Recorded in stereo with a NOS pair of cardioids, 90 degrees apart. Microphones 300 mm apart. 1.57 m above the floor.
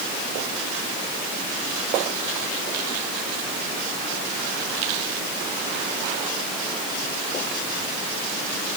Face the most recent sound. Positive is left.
No sound to turn to.